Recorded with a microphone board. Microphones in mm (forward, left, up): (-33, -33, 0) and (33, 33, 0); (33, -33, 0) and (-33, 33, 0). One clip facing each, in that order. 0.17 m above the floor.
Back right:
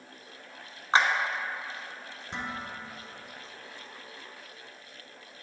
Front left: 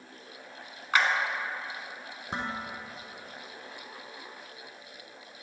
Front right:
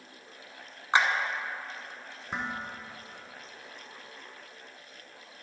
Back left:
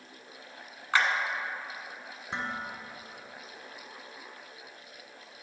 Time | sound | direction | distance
0.9 | a clap | 100° right | 1.0 m
2.3 | dishes clattering | 35° left | 1.3 m